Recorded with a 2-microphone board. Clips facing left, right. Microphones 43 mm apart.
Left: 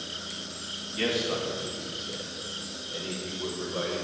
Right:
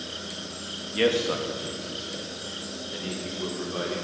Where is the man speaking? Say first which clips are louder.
Right 5 dB; 55° right (ahead or behind), 2 m; by 4.0 s 85° right, 4.5 m.